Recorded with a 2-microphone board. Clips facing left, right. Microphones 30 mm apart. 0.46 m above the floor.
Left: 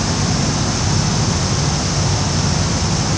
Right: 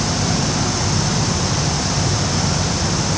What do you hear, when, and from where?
Only background noise.